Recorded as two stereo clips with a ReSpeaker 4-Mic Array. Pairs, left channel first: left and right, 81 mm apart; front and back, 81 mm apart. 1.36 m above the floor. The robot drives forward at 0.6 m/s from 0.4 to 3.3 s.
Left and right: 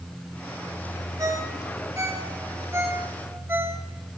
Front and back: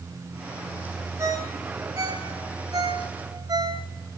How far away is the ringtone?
About 2.5 m.